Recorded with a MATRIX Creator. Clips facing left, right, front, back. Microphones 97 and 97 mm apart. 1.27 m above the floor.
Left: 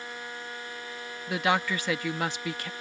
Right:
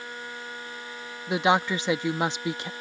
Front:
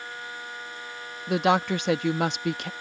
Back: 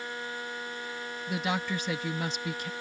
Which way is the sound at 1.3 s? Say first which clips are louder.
Right 4 dB, front 9 dB; 20° right.